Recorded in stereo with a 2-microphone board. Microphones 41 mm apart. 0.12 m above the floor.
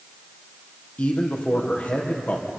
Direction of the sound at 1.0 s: 40° left (ahead or behind).